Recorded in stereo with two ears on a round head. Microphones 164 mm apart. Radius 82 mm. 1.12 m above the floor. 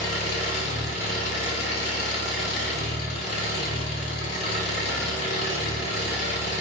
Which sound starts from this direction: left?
An engine running, at 0.0 s.